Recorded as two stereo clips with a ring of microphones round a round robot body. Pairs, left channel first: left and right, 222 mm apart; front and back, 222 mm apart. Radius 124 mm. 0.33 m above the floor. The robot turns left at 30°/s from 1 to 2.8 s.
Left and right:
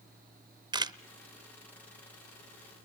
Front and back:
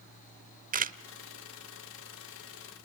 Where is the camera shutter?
155° right, 0.7 m.